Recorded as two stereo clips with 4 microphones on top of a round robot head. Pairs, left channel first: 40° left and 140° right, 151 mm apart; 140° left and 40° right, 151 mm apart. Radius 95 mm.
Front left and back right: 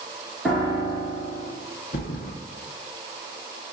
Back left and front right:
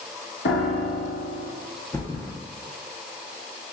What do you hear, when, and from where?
0.5 s a piano: 130° left, 2.5 m
1.9 s a thud: 65° left, 2 m